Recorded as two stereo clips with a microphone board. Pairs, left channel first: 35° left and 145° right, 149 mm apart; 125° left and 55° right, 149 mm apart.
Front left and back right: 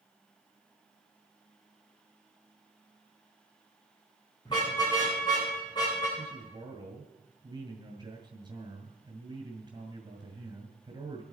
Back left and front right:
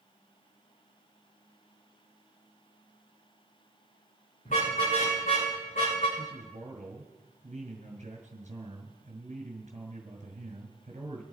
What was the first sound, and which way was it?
A car horn, 95° left.